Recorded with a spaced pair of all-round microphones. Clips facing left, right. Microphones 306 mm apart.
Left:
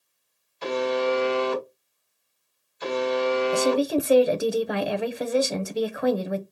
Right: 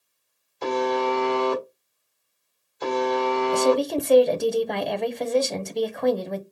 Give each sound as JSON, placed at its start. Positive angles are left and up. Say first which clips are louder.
{"t": 0.6, "sound": "a buzzer", "louder": "even", "side_deg": -55, "distance_m": 1.6}
{"t": 3.5, "sound": "a woman speaking", "louder": "right 4 dB", "side_deg": 5, "distance_m": 0.8}